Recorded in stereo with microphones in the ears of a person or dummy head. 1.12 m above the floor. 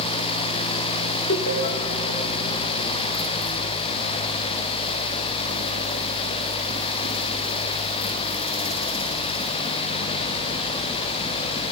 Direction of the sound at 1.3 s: 45° left (ahead or behind).